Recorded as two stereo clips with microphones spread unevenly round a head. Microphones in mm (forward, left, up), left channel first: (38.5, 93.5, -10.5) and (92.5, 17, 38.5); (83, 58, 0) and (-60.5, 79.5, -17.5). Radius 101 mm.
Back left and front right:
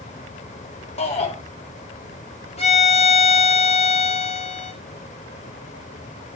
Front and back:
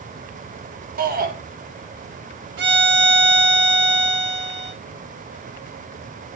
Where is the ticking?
I don't hear ticking.